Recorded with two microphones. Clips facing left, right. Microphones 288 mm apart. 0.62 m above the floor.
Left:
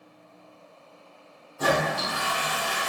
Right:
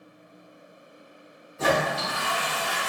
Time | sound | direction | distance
1.6 | a toilet flushing | 25° right (ahead or behind) | 0.9 m